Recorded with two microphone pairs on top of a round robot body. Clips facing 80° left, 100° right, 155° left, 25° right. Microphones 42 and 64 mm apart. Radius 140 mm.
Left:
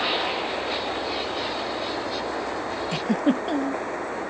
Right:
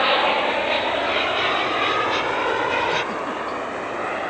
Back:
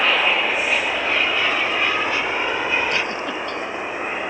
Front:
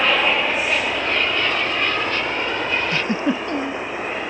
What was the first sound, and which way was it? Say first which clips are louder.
An aircraft: right 7 dB, even; 100° right.